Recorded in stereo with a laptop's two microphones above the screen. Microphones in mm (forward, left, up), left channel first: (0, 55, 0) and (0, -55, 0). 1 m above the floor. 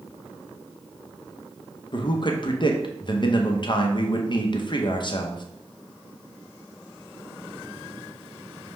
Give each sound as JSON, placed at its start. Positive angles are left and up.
{"t": 1.9, "sound": "a man speaking", "side_deg": 45, "distance_m": 0.7}